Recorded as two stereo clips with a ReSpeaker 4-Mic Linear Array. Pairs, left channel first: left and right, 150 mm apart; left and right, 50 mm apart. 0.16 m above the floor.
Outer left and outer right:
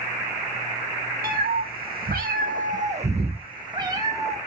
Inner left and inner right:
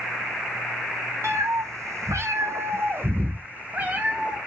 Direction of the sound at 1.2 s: 75° right (ahead or behind).